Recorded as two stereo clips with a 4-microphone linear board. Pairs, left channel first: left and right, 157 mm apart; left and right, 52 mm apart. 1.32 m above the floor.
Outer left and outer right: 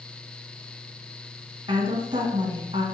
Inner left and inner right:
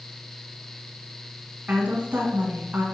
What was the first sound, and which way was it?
A woman speaking, 30° right (ahead or behind).